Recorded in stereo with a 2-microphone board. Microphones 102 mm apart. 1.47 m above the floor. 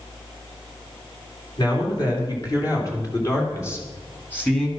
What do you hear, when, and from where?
1.6 s a man speaking: 45° left (ahead or behind), 4 m; by 4.7 s 10° left (ahead or behind), 2.5 m